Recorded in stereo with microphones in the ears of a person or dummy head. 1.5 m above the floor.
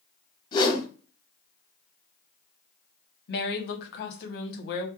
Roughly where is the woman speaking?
Left.